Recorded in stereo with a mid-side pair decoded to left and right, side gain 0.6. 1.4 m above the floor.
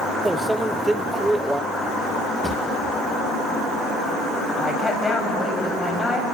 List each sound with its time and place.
0.2 s a microwave: 10° right, 0.6 m
2.4 s a drawer: 5° left, 4.5 m
4.6 s a woman speaking: 20° left, 7 m